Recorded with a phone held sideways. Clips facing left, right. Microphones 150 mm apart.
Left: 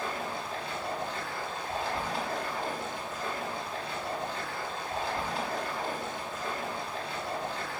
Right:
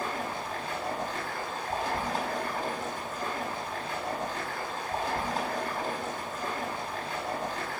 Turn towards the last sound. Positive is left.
turn(degrees=-50)  # may be behind; listen again after turning